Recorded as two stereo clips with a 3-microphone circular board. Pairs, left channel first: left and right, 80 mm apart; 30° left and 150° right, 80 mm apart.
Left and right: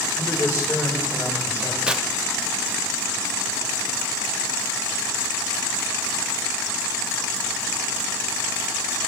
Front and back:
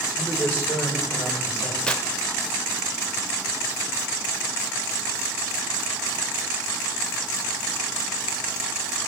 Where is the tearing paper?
30° right, 0.7 m.